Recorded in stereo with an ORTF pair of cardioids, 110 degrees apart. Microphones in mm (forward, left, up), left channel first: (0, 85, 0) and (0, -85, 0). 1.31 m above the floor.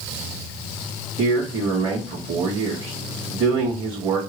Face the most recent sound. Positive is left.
turn(degrees=-45)